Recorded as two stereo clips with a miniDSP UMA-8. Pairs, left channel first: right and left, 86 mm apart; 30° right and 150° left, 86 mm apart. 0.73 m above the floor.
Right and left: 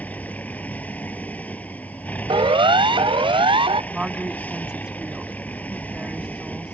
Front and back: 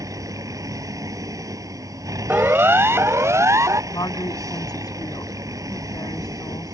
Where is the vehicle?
165° right.